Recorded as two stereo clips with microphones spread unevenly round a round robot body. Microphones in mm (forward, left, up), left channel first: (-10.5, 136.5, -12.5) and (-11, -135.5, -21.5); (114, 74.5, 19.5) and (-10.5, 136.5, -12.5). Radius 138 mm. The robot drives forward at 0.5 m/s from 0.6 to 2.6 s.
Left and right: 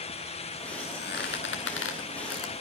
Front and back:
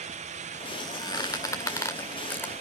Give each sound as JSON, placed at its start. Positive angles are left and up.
{"t": 0.8, "sound": "a squeak", "azimuth_deg": 35, "distance_m": 2.5}